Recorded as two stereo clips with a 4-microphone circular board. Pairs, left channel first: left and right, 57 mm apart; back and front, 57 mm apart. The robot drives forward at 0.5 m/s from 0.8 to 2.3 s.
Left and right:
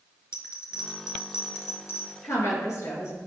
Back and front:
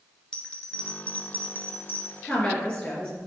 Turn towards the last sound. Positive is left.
turn(degrees=110)